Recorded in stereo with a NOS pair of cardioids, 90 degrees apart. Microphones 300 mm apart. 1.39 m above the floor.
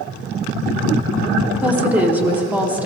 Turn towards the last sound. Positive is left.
turn(degrees=-5)